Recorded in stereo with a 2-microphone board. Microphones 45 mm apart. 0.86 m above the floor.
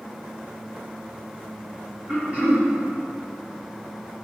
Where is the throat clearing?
35° right (ahead or behind), 1.8 m.